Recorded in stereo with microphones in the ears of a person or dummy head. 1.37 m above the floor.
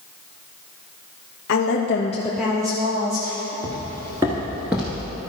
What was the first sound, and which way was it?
A woman speaking, 70° left (ahead or behind).